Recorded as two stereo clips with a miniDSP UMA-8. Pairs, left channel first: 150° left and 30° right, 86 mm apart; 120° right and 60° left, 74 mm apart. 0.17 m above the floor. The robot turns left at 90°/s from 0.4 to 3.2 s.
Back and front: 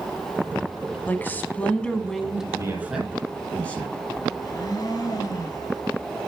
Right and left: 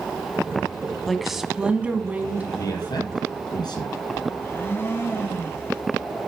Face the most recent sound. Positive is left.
turn(degrees=-175)